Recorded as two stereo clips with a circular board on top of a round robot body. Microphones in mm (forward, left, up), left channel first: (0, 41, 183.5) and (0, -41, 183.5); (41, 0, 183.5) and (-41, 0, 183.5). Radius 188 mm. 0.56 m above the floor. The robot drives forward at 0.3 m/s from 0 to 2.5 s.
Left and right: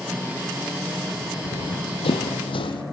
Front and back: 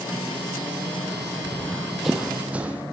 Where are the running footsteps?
70° left, 1.3 m; by 2.8 s 110° left, 2 m.